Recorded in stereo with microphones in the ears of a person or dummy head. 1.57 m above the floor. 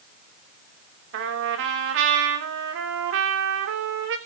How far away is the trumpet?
About 2.5 m.